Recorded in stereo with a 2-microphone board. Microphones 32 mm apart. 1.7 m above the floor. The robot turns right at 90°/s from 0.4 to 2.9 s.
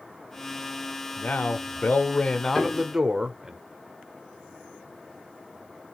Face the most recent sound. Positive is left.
turn(degrees=65)